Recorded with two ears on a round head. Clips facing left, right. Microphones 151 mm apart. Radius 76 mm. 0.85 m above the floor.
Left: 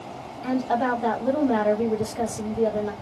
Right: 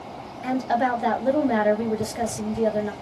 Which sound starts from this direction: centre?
A woman speaking, at 0.4 s.